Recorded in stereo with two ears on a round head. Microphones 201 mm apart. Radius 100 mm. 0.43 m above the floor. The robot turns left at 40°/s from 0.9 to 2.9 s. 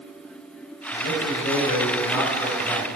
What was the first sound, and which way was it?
A man speaking, 60° left.